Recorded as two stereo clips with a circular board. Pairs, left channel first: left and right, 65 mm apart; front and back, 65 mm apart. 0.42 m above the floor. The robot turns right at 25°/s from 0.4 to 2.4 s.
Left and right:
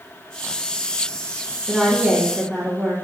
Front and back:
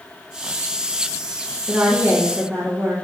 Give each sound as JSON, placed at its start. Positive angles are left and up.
{"t": 1.7, "sound": "a woman speaking", "azimuth_deg": 165, "distance_m": 1.1}